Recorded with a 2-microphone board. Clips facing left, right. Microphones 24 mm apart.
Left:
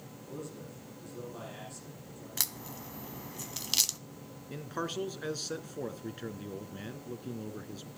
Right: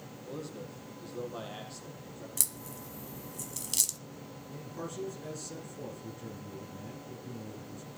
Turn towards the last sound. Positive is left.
turn(degrees=60)  # may be behind; listen again after turning